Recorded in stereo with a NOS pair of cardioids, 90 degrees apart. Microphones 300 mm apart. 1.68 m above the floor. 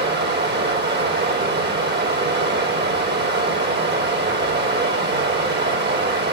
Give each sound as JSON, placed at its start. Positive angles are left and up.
{"t": 0.0, "sound": "running water", "azimuth_deg": -35, "distance_m": 3.5}